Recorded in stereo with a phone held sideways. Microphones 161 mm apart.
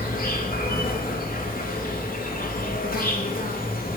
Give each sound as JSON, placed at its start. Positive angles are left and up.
{"t": 0.0, "sound": "an insect", "side_deg": 65, "distance_m": 2.5}